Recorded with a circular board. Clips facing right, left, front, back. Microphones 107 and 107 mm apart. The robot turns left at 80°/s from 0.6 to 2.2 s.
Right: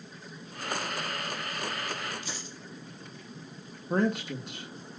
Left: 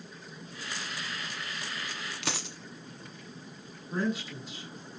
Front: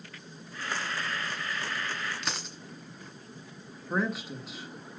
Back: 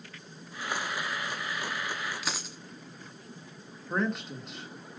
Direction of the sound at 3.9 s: 85° right.